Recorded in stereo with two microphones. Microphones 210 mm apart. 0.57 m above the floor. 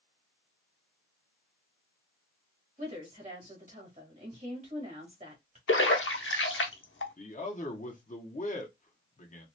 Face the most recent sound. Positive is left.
turn(degrees=40)  # may be behind; listen again after turning